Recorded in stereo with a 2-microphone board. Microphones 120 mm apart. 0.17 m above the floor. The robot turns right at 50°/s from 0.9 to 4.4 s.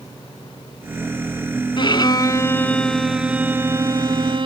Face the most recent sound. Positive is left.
turn(degrees=-115)